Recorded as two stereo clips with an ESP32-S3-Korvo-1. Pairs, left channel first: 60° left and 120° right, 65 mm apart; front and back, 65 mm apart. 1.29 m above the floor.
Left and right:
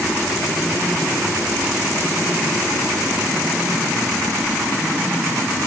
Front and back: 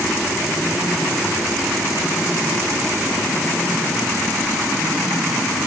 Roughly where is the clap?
I don't hear a clap.